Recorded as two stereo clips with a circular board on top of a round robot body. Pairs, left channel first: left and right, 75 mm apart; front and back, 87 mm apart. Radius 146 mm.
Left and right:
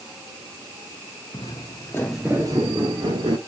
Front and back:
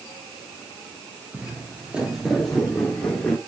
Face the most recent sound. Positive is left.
turn(degrees=-80)